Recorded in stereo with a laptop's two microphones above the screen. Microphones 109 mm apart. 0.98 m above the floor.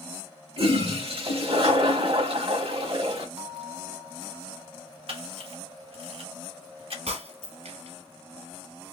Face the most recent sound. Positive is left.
turn(degrees=-70)  # may be behind; listen again after turning